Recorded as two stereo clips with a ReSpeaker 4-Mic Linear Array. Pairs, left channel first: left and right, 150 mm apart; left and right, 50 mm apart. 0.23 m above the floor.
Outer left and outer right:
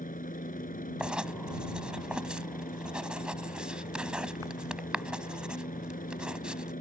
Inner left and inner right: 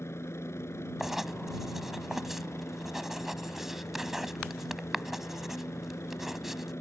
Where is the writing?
5° right (ahead or behind).